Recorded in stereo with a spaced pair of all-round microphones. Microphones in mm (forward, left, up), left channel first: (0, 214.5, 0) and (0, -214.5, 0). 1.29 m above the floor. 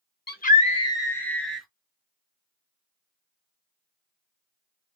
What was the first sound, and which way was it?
A scream, 25° left (ahead or behind).